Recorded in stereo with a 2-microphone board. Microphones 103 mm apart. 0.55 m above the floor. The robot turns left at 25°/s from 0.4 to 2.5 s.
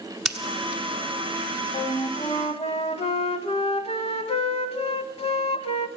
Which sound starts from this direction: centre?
Scissors, at 0.2 s.